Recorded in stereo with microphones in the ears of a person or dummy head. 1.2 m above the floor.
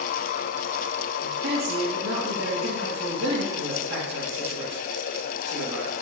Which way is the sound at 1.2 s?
80° right.